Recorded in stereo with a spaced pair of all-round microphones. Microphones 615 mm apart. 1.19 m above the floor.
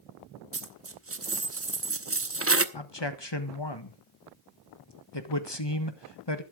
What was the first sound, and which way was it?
A dropped coin, 25° right (ahead or behind).